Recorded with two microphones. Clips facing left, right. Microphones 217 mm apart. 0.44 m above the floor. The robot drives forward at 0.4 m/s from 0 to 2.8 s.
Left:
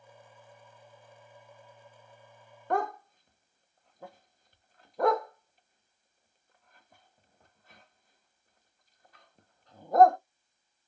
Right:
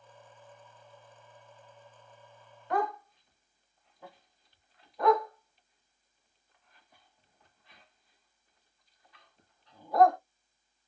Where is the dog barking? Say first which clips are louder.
Left 1 dB; 50° left (ahead or behind), 0.5 m; by 10.2 s 45° left (ahead or behind), 0.5 m.